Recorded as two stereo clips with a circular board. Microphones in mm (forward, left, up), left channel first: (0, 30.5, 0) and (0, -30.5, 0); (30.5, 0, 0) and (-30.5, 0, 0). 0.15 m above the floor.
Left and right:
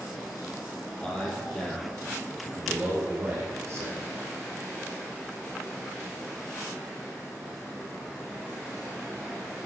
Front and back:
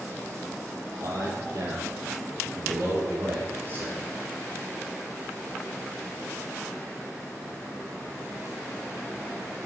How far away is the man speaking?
About 3.5 m.